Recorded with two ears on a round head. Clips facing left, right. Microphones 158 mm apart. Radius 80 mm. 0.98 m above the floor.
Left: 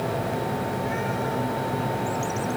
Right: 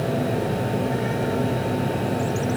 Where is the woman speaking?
I don't hear a woman speaking.